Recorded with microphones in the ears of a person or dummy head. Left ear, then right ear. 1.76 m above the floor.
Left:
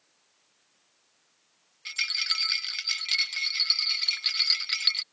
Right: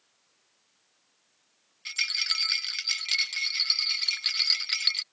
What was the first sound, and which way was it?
A rattle, 10° right (ahead or behind).